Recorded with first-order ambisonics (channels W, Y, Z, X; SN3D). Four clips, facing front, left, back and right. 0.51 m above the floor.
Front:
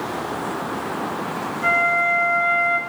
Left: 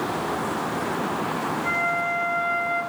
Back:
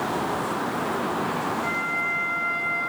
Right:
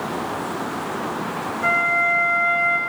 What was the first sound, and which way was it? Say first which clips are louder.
A flute: right 8 dB, front 8 dB; 55° right.